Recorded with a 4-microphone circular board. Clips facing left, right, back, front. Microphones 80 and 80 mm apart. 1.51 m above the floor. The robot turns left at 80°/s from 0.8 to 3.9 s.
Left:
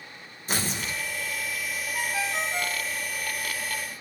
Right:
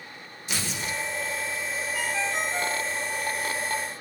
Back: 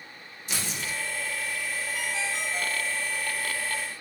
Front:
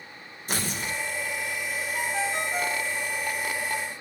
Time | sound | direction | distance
0.5 | tearing paper | 40° left | 2 m
1.9 | a ringtone | 35° left | 1.1 m